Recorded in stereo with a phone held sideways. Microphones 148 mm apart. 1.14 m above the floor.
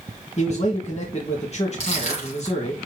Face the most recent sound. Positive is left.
turn(degrees=45)  # may be behind; listen again after turning